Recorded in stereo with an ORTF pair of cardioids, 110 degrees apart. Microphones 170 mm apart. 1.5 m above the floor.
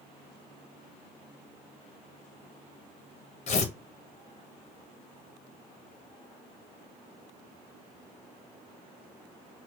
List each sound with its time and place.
3.5 s tearing paper: 40° left, 1.2 m